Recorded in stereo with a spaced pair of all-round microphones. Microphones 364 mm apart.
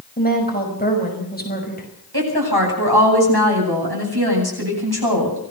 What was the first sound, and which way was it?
A woman speaking, 25° left (ahead or behind).